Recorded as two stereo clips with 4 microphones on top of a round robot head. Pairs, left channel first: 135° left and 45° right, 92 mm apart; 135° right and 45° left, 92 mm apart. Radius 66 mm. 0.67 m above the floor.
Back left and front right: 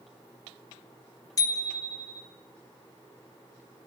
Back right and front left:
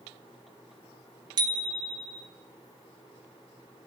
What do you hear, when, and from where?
1.4 s a bicycle bell: 85° left, 2 m